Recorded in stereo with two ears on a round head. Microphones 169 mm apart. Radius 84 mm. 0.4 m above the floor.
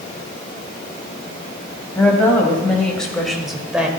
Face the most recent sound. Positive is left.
turn(degrees=-5)  # may be behind; listen again after turning